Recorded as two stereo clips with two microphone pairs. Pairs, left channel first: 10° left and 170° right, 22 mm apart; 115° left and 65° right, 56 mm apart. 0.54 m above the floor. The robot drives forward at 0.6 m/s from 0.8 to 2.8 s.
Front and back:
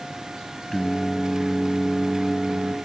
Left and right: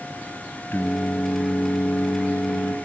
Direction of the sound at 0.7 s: 75° left.